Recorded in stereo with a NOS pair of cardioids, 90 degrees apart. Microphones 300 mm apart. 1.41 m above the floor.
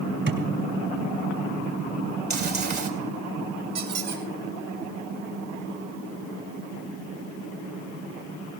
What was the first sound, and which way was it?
A thud, 45° right.